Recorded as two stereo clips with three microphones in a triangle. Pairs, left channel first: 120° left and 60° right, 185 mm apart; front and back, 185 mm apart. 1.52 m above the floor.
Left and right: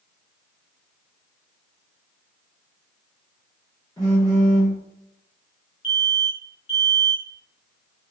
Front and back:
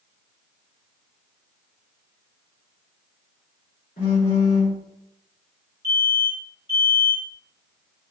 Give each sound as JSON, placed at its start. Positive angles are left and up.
{"t": 4.0, "sound": "a phone buzzing", "azimuth_deg": 50, "distance_m": 1.9}
{"t": 5.8, "sound": "an alarm", "azimuth_deg": 25, "distance_m": 1.8}